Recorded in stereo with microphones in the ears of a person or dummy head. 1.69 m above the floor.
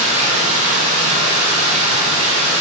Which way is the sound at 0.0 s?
35° right (ahead or behind).